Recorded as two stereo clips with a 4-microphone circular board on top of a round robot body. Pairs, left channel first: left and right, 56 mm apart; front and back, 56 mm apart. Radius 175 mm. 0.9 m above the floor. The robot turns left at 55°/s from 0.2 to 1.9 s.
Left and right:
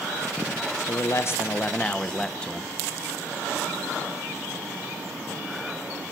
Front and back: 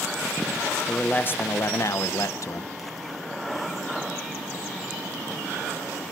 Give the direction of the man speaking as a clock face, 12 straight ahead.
10 o'clock.